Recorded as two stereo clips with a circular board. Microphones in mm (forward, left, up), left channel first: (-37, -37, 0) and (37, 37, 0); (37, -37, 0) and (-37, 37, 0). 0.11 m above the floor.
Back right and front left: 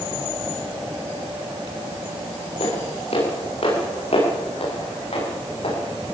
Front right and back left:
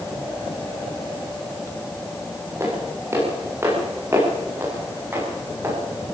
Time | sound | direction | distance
2.6 | footsteps | 160° right | 10 m